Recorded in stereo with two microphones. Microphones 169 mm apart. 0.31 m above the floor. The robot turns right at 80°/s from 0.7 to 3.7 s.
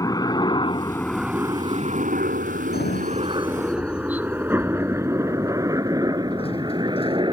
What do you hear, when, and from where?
0.0 s a helicopter: 20° left (ahead or behind); by 7.3 s 30° right (ahead or behind)
2.7 s a sliding door: 65° left (ahead or behind); by 7.2 s 35° left (ahead or behind)